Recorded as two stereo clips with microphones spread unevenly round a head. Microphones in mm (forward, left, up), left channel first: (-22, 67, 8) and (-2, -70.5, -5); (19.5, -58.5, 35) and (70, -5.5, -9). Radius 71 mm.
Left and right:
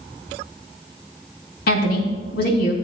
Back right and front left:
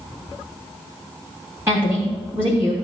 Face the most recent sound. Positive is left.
turn(degrees=120)